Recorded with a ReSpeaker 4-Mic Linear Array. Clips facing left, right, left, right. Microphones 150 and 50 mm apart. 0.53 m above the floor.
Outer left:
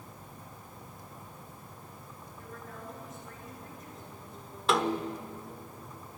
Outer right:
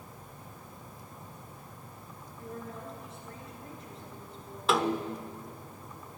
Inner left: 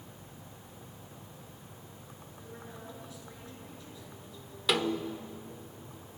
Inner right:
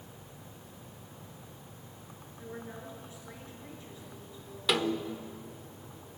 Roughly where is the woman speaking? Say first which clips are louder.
Outer right 5 dB, inner right 5 dB; right.